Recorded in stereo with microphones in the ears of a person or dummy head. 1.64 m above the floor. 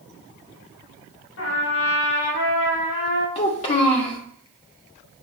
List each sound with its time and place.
1.4 s a trumpet: 65° left (ahead or behind), 3.5 m
3.4 s a child speaking: 40° left (ahead or behind), 1.4 m